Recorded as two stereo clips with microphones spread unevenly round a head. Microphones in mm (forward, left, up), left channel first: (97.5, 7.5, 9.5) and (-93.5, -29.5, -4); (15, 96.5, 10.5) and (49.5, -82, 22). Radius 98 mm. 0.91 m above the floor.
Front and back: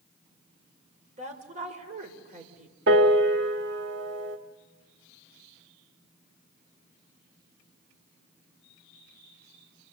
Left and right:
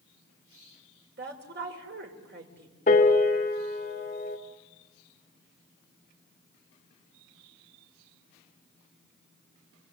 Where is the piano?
155° left, 1.8 m.